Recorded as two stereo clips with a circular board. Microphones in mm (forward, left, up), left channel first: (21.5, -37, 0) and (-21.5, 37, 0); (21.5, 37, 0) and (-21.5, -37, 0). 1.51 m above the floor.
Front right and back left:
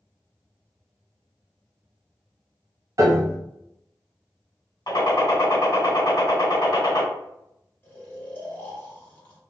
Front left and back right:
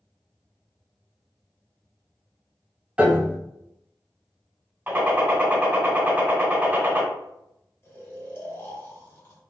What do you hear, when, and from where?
3.0 s a piano: 165° left, 0.6 m
4.9 s a gunshot: 60° right, 1.6 m
7.8 s snoring: 10° left, 1.2 m